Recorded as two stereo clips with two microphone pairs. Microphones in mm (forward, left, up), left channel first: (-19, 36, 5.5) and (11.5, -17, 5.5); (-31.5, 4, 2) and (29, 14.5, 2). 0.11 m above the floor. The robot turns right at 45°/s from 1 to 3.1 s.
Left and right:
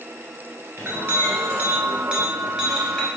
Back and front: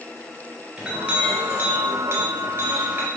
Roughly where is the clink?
Ahead right.